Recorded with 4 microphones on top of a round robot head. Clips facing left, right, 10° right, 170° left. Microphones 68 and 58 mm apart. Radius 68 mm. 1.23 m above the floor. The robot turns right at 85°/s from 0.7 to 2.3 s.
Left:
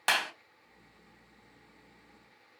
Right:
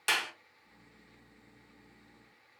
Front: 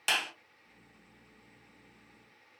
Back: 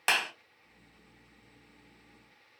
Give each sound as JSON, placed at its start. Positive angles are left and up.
{"t": 0.1, "sound": "a clap", "azimuth_deg": 125, "distance_m": 1.7}